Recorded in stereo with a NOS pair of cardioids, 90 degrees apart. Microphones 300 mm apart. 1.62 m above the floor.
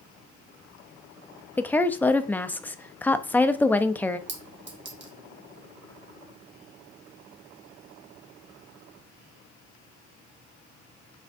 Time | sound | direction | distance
1.6 | a woman speaking | 5° left | 0.5 m
4.3 | a clink | 40° right | 1.5 m